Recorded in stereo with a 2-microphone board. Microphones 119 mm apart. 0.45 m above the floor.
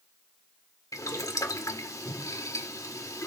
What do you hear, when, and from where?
0.9 s boiling: 30° left (ahead or behind), 1.5 m